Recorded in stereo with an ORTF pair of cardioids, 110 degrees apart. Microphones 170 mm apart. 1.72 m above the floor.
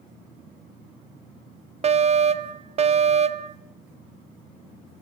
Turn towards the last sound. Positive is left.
turn(degrees=-40)